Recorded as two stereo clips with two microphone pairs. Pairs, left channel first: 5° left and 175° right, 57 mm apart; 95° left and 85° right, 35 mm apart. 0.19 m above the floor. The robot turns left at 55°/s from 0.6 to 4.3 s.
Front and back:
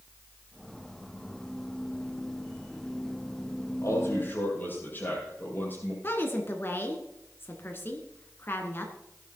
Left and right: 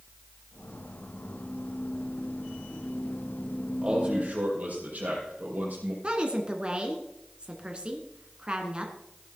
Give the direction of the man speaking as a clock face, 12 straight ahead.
1 o'clock.